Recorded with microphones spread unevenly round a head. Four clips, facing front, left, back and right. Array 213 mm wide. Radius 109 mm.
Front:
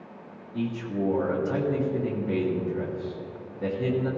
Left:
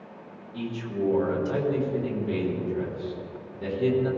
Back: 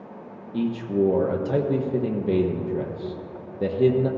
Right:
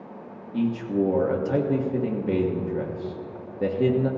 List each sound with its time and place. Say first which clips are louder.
0.5 s a man speaking: right 7 dB, back 6 dB; 150° right, 1.4 m